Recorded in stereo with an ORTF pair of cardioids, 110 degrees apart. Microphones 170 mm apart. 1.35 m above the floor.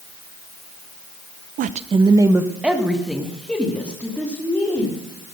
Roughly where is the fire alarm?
I don't hear a fire alarm.